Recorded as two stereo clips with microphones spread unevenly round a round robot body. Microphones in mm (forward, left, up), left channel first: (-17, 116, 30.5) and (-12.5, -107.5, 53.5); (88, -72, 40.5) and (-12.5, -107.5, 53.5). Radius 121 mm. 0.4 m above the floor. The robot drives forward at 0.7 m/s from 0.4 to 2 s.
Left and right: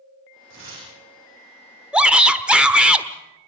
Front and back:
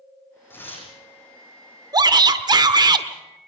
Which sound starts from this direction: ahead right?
Tearing paper, at 0.5 s.